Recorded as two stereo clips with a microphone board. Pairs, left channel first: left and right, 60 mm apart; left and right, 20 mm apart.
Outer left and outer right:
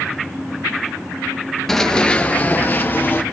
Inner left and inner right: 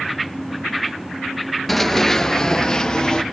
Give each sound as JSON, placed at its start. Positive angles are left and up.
{"t": 1.7, "sound": "running footsteps", "side_deg": 5, "distance_m": 0.7}